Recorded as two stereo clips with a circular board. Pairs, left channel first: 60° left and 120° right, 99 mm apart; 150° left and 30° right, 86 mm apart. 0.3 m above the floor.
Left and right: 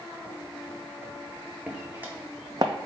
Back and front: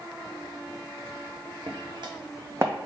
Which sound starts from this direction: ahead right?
Footsteps, at 1.7 s.